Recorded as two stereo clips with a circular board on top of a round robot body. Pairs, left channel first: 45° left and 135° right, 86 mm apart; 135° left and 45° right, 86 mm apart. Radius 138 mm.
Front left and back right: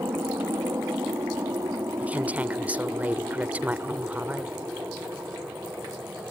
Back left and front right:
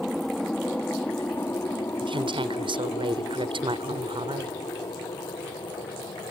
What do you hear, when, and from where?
0.0 s an aircraft: 135° right; by 6.3 s 160° left
2.0 s a woman speaking: 60° right